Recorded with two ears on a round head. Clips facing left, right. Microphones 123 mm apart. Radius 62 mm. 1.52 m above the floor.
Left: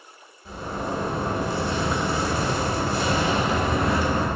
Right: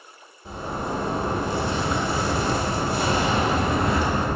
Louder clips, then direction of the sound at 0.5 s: Even; 20° right (ahead or behind).